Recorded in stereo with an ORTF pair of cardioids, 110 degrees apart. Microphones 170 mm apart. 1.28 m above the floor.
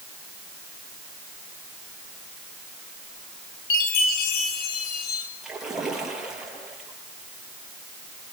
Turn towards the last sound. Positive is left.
turn(degrees=-5)